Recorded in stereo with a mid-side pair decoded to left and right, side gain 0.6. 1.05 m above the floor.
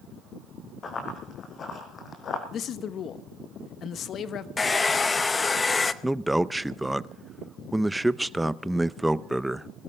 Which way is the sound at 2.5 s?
50° left.